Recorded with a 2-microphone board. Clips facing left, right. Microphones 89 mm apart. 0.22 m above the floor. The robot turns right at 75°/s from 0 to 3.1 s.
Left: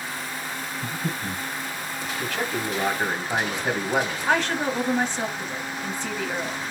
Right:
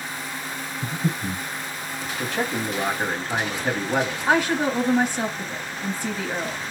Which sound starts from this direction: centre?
A woman speaking, at 4.3 s.